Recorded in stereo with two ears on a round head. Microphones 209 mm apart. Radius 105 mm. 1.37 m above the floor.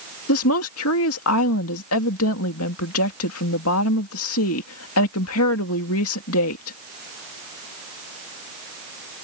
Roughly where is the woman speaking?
Left.